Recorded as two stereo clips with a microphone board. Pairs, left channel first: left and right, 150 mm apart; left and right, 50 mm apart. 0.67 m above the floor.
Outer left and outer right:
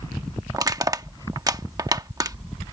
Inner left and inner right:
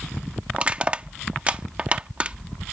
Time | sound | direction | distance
0.5 | crushing | 25° right (ahead or behind) | ?